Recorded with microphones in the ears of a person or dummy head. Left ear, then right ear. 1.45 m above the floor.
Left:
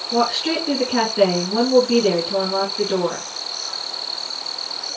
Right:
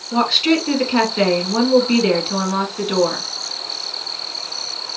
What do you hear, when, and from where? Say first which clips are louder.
0.1 s a woman speaking: right 4 dB; 35° right (ahead or behind), 3 m